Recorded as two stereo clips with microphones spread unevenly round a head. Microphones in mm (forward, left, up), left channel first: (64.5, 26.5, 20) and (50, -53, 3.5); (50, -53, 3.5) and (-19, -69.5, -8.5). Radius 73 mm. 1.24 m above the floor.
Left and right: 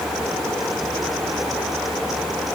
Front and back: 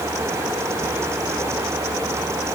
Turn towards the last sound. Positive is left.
No sound to turn to.